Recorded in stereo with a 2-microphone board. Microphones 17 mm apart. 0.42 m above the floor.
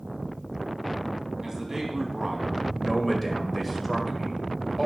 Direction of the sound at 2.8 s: 10° left (ahead or behind).